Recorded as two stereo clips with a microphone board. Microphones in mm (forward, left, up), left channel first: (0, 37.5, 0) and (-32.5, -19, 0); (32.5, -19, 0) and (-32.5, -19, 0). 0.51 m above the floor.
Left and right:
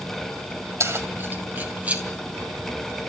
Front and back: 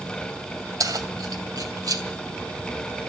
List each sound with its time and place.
0.8 s keys jangling: 160° right, 2.5 m; by 2.0 s 170° left, 3 m